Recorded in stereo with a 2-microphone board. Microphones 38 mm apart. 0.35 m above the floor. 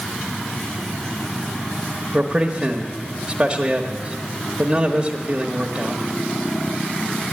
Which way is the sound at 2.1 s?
25° right (ahead or behind).